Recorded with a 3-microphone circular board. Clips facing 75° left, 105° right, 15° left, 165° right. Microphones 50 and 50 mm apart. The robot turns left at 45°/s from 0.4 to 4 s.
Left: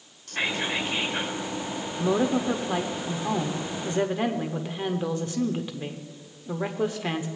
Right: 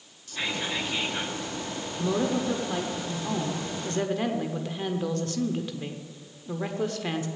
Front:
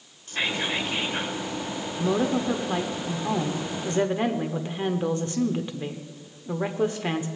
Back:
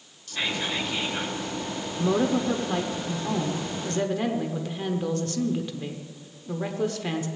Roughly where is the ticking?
No ticking in this recording.